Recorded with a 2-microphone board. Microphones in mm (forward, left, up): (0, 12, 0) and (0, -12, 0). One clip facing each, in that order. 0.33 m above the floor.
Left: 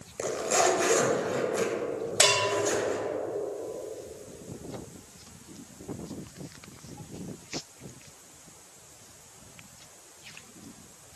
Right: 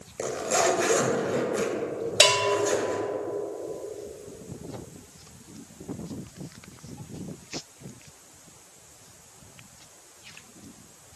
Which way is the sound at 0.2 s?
Centre (ahead or behind).